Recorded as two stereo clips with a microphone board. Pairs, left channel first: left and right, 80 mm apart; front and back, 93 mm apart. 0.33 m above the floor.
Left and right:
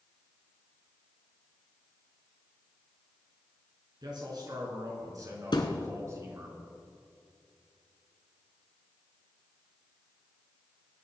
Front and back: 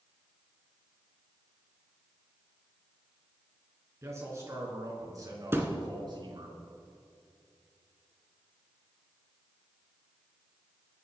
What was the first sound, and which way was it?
A man speaking, 120° right.